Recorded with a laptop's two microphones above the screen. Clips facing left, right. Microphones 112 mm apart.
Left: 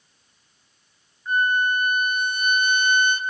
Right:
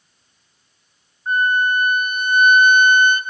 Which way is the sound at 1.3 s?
50° right (ahead or behind).